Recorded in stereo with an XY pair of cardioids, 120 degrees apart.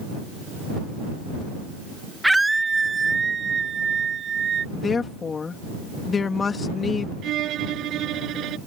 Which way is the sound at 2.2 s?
5° right.